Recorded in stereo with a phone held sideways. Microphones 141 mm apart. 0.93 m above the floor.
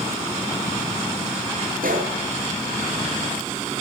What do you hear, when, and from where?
1.8 s a gunshot: 85° right, 7.5 m